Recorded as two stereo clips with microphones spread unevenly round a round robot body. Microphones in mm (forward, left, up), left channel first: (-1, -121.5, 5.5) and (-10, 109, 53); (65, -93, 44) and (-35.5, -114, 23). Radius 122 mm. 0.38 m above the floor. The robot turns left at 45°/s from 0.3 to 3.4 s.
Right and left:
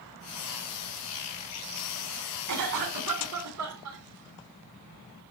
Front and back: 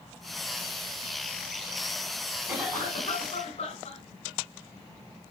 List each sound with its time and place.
2.5 s a cough: 110° left, 3 m; by 4.0 s 65° left, 3 m